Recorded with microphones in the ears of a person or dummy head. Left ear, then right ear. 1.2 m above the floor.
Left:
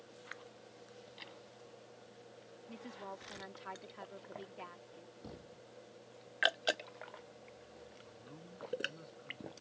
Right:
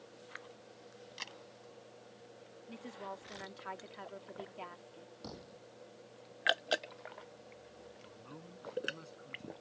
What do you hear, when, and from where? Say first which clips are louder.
1.2 s a camera shutter: right 7 dB; 45° right (ahead or behind)
2.7 s a woman speaking: right 2 dB; 10° right (ahead or behind)
5.2 s a thud: right 4 dB; 35° right (ahead or behind)
8.0 s a man speaking: right 2 dB; 30° right (ahead or behind)